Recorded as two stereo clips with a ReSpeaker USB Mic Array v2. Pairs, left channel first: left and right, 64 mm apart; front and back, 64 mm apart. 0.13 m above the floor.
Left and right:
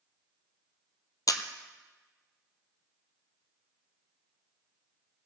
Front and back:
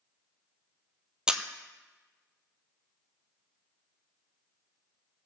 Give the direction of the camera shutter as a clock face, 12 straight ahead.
9 o'clock.